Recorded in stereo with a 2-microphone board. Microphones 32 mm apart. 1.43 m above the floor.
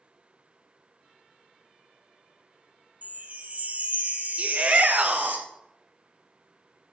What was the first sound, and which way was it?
A chime, 55° right (ahead or behind).